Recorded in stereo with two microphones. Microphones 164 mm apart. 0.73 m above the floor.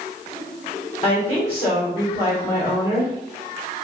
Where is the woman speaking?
35° left (ahead or behind), 2.5 m.